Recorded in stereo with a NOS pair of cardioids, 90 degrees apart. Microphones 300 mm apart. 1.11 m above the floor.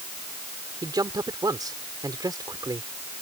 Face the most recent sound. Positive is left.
turn(degrees=-15)